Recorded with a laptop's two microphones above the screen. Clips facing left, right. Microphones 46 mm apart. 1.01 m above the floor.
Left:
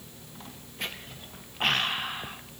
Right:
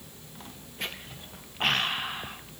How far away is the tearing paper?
No tearing paper in this recording.